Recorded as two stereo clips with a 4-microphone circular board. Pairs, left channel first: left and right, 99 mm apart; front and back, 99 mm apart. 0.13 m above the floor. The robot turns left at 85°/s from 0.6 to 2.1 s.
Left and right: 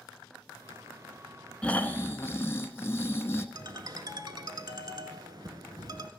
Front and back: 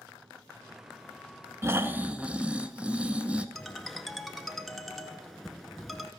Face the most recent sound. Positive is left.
turn(degrees=-90)